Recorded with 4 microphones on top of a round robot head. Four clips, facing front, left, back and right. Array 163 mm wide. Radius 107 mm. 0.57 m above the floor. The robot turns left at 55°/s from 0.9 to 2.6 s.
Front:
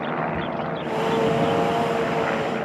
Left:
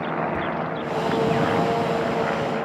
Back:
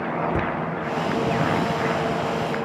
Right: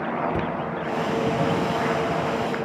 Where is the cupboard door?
155° right, 0.7 m.